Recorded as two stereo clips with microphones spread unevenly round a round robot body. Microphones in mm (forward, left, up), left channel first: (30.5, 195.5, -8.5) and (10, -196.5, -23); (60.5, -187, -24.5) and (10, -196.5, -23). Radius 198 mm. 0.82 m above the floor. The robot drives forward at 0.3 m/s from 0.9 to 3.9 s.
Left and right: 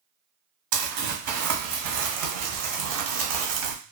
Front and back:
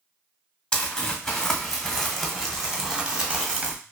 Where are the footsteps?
I don't hear footsteps.